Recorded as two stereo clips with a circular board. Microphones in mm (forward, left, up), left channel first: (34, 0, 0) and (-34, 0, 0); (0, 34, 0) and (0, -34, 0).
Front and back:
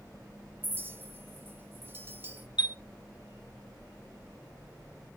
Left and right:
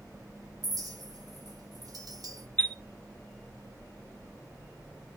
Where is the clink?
120° right, 1.3 m.